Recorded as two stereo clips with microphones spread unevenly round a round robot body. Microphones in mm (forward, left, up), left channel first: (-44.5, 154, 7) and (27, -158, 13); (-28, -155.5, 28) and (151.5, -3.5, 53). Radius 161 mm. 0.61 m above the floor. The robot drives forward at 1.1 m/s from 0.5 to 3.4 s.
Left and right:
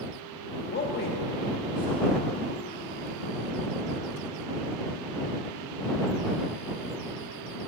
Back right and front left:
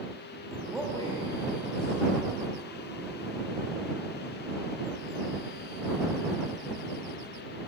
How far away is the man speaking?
About 0.7 m.